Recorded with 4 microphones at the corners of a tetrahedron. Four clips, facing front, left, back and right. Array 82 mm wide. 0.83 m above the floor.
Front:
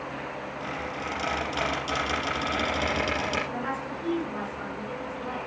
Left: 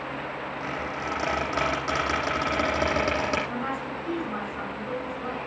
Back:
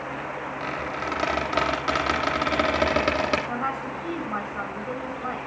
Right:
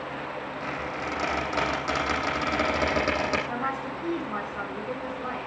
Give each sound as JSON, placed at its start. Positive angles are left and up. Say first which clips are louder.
{"t": 0.6, "sound": "a squeak", "louder": "even, back 4 dB", "azimuth_deg": 180, "distance_m": 7.5}
{"t": 3.5, "sound": "a woman speaking", "louder": "right 1 dB, back 3 dB", "azimuth_deg": -170, "distance_m": 10.0}